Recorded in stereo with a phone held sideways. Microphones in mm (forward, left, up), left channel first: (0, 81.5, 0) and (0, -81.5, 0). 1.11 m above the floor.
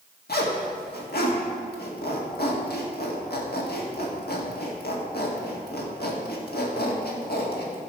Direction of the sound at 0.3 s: 75° left (ahead or behind).